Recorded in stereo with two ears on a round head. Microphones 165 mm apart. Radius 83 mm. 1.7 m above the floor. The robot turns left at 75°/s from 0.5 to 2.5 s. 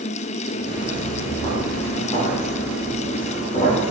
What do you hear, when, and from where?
0.7 s footsteps: 35° right (ahead or behind), 2 m; by 3.9 s 40° left (ahead or behind), 3.5 m